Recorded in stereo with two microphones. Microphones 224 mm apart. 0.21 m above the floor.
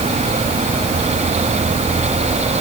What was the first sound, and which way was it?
Only background noise.